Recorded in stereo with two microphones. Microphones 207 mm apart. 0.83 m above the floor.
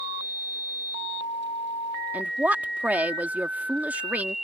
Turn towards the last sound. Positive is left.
turn(degrees=-5)  # may be behind; listen again after turning